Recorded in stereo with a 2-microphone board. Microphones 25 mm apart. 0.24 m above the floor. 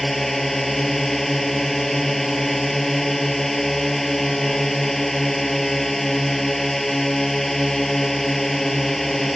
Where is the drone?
10° left (ahead or behind).